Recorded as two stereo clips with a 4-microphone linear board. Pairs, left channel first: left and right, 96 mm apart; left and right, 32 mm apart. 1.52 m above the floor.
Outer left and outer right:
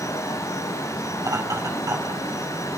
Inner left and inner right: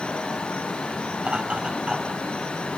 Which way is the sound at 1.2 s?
35° right (ahead or behind).